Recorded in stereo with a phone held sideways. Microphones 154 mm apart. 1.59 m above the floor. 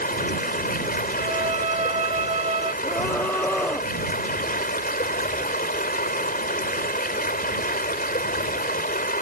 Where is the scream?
10° left (ahead or behind).